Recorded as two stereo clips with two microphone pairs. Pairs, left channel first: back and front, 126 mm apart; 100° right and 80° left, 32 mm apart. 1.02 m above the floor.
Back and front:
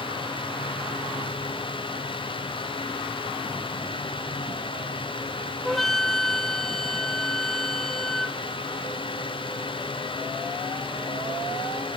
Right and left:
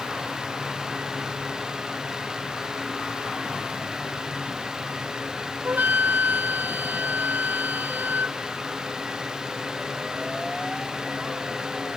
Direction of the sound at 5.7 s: 90° left.